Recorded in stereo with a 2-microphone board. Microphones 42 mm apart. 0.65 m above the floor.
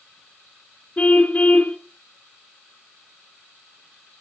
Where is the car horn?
40° left (ahead or behind), 2.5 m.